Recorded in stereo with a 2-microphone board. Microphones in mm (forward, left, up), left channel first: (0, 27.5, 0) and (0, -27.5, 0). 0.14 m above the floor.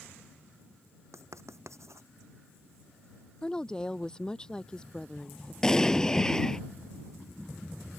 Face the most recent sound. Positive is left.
turn(degrees=10)  # may be behind; listen again after turning